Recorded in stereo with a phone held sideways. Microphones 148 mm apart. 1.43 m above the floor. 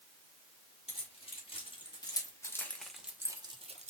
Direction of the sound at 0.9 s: 40° left (ahead or behind).